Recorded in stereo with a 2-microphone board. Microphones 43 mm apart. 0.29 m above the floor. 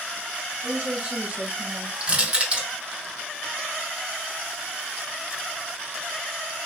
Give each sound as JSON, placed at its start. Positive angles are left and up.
{"t": 0.6, "sound": "a woman speaking", "side_deg": -55, "distance_m": 1.7}
{"t": 2.0, "sound": "crushing", "side_deg": -30, "distance_m": 2.5}